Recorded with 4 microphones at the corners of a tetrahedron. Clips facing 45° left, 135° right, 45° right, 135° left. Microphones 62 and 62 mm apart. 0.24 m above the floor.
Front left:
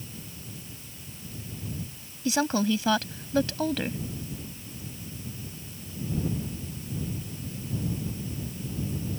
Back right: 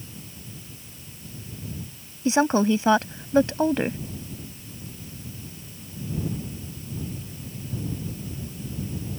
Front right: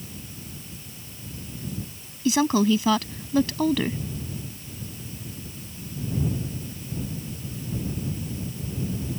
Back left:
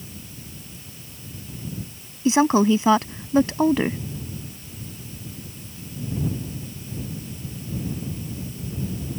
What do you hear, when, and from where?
2.2 s a woman speaking: straight behind